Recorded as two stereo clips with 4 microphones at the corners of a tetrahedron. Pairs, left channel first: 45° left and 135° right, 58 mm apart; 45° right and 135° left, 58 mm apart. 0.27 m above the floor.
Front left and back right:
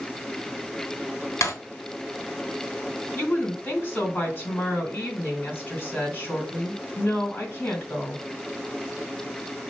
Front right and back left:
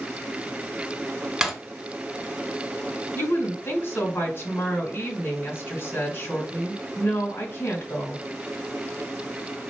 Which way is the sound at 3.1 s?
5° right.